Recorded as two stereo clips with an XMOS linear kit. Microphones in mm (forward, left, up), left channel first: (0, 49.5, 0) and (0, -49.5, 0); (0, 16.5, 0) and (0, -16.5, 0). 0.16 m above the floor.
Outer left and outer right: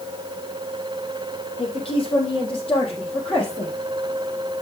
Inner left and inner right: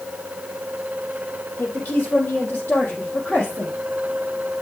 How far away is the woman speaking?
About 4.5 m.